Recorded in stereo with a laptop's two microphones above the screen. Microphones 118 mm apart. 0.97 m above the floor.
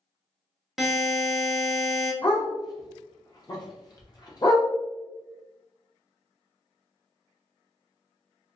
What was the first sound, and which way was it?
A buzzer, centre (ahead or behind).